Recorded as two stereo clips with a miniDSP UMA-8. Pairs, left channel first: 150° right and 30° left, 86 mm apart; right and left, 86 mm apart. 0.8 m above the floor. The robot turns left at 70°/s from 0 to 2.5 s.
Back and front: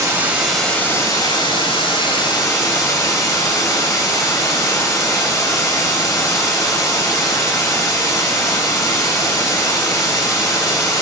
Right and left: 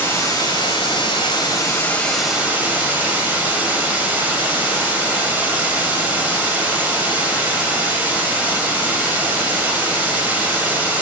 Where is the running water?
25° right, 3 m; by 11.0 s 160° left, 3 m.